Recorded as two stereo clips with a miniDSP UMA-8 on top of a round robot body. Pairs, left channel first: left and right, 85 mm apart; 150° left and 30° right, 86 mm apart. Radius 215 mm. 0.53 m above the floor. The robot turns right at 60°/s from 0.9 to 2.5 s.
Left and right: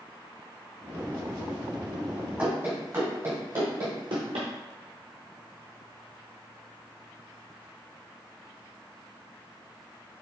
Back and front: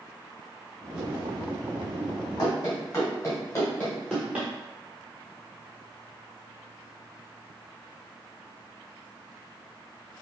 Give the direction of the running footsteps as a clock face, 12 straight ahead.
6 o'clock.